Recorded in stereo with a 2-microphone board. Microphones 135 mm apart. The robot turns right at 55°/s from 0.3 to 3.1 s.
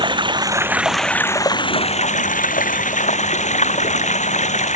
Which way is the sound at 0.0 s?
35° right.